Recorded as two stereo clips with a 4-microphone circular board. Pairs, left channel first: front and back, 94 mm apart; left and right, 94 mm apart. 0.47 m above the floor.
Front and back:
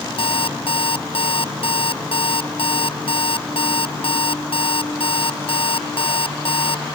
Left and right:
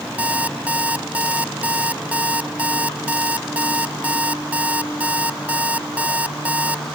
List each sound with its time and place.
0.2 s an alarm clock: 15° right